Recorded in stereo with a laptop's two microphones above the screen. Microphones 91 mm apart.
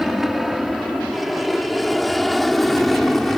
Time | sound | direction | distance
0.0 | an aircraft | centre (ahead or behind) | ?